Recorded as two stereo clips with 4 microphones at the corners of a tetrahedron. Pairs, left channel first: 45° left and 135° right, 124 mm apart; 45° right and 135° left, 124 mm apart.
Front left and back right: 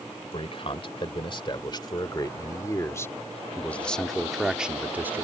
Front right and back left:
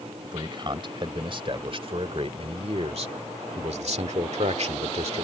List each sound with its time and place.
0.2 s a man speaking: 85° left; by 5.2 s 155° left